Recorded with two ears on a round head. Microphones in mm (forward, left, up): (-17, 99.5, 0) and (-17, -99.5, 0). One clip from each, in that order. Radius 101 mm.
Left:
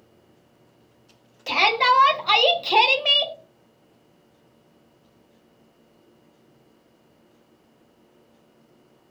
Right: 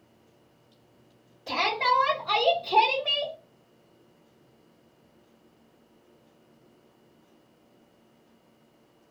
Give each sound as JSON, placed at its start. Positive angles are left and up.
{"t": 1.5, "sound": "a shout", "side_deg": 75, "distance_m": 1.2}